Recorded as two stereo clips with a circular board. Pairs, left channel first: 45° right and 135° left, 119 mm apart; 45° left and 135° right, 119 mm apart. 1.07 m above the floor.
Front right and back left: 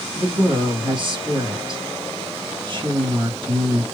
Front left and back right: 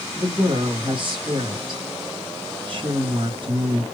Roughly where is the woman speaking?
Behind.